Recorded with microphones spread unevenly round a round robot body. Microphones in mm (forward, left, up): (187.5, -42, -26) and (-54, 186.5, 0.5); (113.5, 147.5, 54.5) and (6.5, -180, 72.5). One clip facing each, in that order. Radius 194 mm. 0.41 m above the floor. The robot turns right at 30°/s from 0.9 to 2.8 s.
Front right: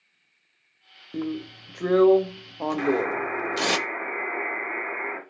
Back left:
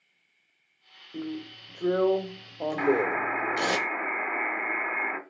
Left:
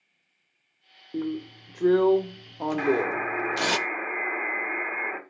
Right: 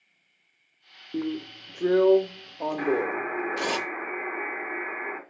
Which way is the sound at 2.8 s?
105° left.